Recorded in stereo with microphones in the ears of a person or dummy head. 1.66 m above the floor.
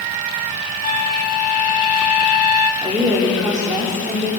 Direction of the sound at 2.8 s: 20° right (ahead or behind).